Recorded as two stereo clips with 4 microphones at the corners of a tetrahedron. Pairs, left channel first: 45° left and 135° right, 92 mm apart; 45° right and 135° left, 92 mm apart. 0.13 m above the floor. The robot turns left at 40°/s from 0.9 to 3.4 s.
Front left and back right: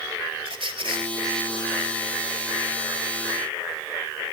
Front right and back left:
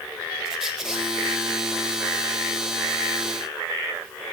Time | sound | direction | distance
0.5 | a squeak | 140° right | 0.8 m